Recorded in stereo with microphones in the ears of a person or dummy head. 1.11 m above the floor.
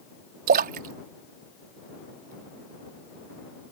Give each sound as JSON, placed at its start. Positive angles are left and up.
{"t": 0.5, "sound": "a splash", "side_deg": -40}